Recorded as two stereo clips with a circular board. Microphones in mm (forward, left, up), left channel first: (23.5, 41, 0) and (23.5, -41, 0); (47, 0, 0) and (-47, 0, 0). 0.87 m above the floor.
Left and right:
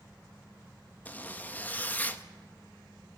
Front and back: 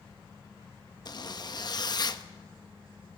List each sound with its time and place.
1.1 s a zipper: 25° left, 1.0 m